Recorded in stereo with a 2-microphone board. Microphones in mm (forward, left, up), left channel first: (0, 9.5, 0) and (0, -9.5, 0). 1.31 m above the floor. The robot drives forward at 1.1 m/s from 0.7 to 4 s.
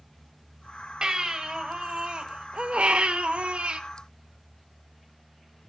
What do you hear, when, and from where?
1.0 s a baby crying: 35° right (ahead or behind), 3.5 m; by 3.8 s 65° right (ahead or behind), 2.0 m